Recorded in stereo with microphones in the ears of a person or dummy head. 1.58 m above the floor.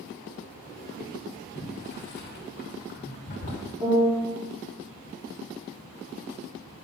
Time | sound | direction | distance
1.6 | boiling | 50° left (ahead or behind) | 2 m
3.8 | a piano | 15° right (ahead or behind) | 1.5 m